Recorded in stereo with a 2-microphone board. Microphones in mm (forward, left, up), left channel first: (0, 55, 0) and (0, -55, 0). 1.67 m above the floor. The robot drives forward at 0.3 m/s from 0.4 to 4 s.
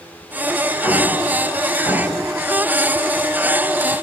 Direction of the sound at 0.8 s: 20° left (ahead or behind).